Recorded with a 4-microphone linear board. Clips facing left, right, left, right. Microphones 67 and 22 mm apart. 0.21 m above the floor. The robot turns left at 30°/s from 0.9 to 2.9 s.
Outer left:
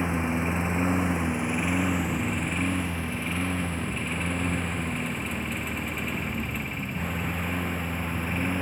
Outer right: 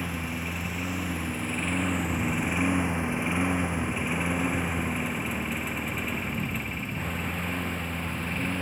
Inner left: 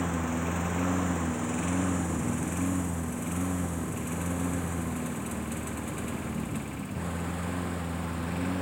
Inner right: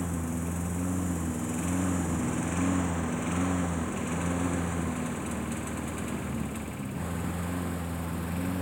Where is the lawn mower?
25° left (ahead or behind); by 8.6 s 10° left (ahead or behind).